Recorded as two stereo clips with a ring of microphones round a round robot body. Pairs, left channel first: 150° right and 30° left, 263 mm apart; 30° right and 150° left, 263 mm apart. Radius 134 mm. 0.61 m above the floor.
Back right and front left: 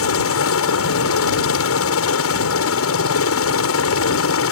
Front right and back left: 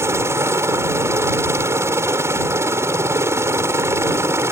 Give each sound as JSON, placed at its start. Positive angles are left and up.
{"t": 0.0, "sound": "a helicopter", "azimuth_deg": -130}